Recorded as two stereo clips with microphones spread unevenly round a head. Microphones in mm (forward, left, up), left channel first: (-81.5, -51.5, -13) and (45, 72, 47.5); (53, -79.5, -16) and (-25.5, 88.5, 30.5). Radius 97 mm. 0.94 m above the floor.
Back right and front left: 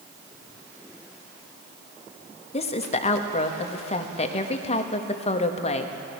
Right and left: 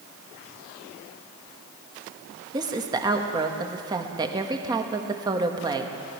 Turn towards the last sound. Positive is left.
turn(degrees=-170)